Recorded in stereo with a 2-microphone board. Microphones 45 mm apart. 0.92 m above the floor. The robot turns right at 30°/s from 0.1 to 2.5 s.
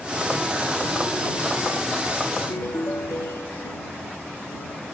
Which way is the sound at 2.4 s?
85° left.